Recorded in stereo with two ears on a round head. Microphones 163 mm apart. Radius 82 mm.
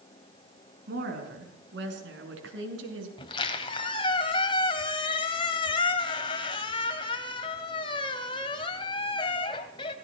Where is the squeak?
25° left (ahead or behind), 1.7 m.